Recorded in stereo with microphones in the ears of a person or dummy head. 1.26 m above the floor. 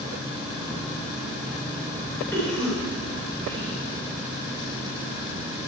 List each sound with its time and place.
2.3 s a cough: 10° left (ahead or behind), 4 m